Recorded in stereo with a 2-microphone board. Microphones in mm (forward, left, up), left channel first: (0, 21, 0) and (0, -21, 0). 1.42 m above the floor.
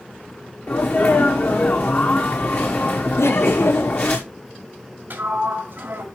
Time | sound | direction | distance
0.7 | a sneeze | 50° left (ahead or behind) | 1.1 m
3.2 | laughter | 75° left (ahead or behind) | 0.7 m
5.1 | a sliding door | 45° right (ahead or behind) | 2 m